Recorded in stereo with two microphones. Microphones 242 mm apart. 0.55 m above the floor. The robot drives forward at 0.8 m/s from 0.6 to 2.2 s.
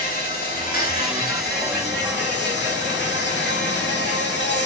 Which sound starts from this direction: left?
An insect, at 0.0 s.